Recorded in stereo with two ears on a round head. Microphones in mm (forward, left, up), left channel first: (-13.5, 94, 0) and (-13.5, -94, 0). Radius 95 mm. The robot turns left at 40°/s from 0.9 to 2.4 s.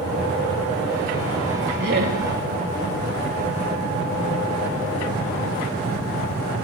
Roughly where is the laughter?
Right.